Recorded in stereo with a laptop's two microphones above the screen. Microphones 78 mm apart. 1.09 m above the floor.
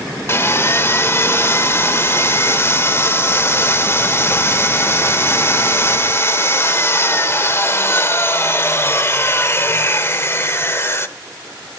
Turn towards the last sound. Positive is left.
turn(degrees=35)  # may be behind; listen again after turning